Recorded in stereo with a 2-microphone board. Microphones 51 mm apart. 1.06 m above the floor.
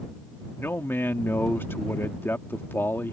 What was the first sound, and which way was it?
A man speaking, 50° left (ahead or behind).